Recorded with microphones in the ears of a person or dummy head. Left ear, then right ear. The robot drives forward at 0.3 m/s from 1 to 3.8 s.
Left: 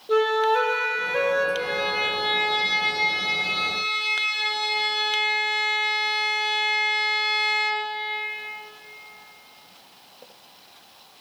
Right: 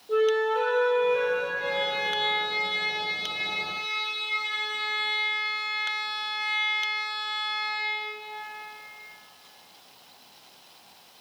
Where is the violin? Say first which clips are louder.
Left 3 dB; 45° left (ahead or behind), 1.3 m; by 7.9 s 70° left (ahead or behind), 0.9 m.